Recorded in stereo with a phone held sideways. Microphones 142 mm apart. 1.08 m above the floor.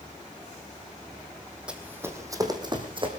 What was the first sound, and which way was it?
Running footsteps, 5° right (ahead or behind).